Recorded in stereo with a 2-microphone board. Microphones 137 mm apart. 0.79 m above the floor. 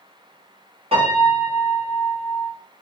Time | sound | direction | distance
0.9 | a piano | 45° right (ahead or behind) | 1.4 m